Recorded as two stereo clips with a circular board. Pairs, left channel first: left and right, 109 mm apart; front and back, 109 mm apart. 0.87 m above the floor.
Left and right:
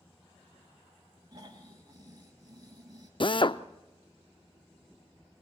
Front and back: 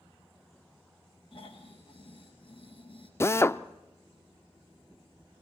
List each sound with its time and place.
1.3 s snoring: 35° right, 3.5 m
3.2 s a drill: 60° left, 0.6 m